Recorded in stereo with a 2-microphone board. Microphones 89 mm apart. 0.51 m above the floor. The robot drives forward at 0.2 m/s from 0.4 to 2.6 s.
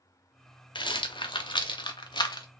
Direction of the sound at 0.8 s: 65° left (ahead or behind).